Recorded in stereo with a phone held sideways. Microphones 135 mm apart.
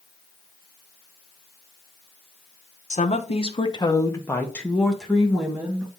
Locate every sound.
2.9 s a woman speaking: 60° left (ahead or behind), 1.0 m; by 5.9 s 10° right (ahead or behind), 2 m